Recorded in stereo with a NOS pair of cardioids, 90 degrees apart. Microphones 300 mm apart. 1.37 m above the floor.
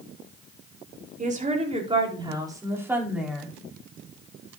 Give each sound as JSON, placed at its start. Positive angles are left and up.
{"t": 1.2, "sound": "a woman speaking", "azimuth_deg": -25, "distance_m": 4.5}